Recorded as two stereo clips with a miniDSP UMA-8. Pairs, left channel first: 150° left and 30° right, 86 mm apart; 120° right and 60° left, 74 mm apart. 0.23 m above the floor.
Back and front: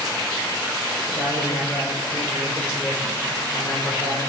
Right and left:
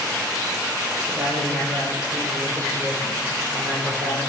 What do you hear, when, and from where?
1.1 s a man speaking: 100° left, 7 m